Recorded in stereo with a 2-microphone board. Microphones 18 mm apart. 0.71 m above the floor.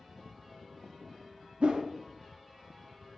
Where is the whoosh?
75° right (ahead or behind), 0.6 m.